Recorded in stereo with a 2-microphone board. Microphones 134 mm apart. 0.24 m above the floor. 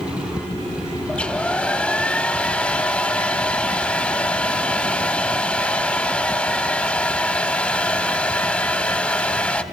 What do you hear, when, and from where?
1.1 s a hair dryer: 10° left (ahead or behind), 0.6 m